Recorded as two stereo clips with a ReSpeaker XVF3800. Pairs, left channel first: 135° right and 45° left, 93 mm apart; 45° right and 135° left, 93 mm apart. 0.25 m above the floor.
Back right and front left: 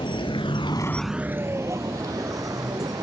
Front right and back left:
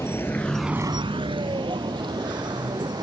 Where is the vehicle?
105° right; by 3.0 s 95° left.